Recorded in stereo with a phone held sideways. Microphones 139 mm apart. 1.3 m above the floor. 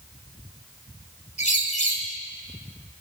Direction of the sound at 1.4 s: 60° left (ahead or behind).